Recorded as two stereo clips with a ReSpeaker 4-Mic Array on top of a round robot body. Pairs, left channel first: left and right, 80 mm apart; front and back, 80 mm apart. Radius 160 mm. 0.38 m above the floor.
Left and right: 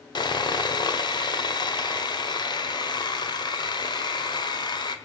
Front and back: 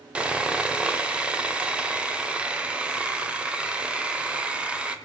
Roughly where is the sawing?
Left.